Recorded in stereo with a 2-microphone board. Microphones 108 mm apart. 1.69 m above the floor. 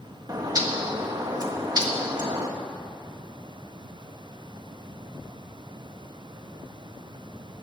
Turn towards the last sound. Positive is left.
turn(degrees=-35)  # may be behind; listen again after turning